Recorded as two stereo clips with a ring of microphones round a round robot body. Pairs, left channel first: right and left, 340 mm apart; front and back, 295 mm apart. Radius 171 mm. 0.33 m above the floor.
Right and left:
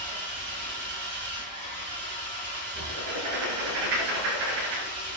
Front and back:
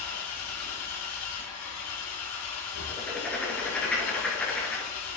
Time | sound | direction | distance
0.0 | an engine running | 30° left | 3.5 m
2.9 | writing | 85° left | 3.5 m